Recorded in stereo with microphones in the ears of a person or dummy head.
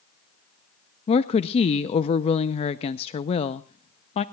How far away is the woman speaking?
About 0.6 m.